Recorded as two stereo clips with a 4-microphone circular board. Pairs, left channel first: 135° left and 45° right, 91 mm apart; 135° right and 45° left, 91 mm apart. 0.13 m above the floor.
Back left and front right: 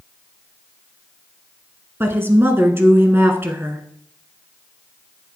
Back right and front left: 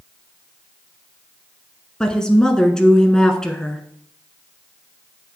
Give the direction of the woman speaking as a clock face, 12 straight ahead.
2 o'clock.